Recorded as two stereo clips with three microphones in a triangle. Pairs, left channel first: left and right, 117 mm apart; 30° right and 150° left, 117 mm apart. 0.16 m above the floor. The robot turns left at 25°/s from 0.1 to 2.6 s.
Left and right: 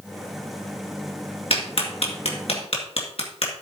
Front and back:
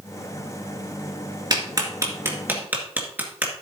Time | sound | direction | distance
1.5 | a clap | 105° left | 2 m